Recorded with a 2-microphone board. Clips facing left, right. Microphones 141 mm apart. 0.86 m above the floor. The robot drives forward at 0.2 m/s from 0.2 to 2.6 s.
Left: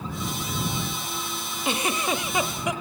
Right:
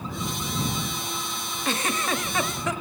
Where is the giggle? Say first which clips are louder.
Left 1 dB; 15° left (ahead or behind), 0.7 m.